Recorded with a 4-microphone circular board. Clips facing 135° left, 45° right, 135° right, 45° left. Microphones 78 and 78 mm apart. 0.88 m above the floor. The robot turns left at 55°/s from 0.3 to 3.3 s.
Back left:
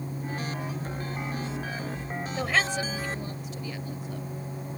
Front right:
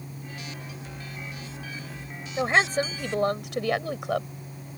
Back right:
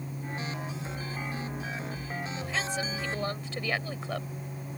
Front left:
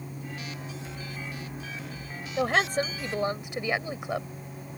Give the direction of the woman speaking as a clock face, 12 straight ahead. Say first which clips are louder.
Front right 5 dB, front left 10 dB; 11 o'clock.